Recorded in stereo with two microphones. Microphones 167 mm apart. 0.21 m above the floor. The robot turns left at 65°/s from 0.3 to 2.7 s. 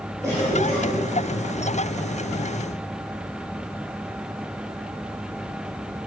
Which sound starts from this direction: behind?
A cough, at 0.2 s.